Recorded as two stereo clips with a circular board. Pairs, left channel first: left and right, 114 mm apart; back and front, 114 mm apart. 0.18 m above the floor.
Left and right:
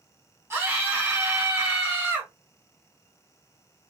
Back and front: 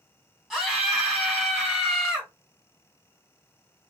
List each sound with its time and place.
0.5 s a scream: 85° right, 1.7 m